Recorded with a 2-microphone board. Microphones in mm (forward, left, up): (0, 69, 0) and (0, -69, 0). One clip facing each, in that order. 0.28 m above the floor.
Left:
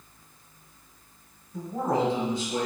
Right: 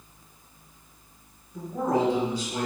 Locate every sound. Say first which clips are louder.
1.5 s a man speaking: right 1 dB; 30° left (ahead or behind), 1.4 m; by 2.7 s 20° left (ahead or behind), 1.5 m